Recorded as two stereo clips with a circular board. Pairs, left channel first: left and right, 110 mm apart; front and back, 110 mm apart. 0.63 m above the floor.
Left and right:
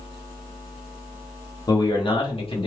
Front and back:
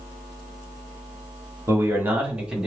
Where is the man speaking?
125° left, 1.5 m; by 2.7 s 95° left, 1.9 m.